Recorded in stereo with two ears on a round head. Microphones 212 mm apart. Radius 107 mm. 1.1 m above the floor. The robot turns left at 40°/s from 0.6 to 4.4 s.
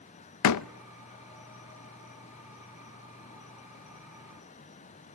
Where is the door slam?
80° left, 0.6 m.